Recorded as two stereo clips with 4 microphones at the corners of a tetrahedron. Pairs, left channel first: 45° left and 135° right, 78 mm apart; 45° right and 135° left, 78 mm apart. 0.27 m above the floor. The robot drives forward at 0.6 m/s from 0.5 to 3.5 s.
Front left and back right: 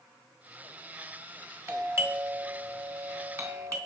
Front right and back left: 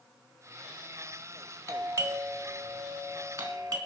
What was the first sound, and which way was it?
A doorbell, 175° left.